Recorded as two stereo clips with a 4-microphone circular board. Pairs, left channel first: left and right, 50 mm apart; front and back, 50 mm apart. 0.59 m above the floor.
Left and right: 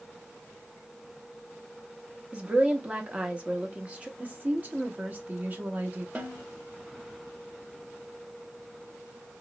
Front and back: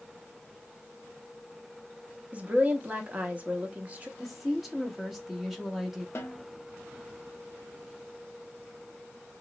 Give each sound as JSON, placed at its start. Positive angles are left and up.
{"t": 2.3, "sound": "a woman speaking", "azimuth_deg": -140, "distance_m": 0.8}
{"t": 4.2, "sound": "a woman speaking", "azimuth_deg": -90, "distance_m": 0.8}
{"t": 6.2, "sound": "a snare drum", "azimuth_deg": -30, "distance_m": 0.8}